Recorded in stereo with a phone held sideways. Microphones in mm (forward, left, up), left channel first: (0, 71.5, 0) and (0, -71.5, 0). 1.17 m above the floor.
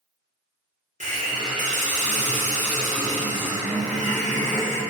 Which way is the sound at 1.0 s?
55° right (ahead or behind).